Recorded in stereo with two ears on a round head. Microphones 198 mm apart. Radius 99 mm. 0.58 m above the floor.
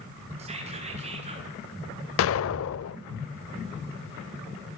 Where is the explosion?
65° left (ahead or behind), 0.6 m.